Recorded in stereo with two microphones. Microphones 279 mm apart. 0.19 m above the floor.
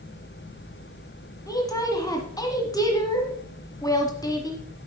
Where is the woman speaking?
15° left (ahead or behind), 1.2 m.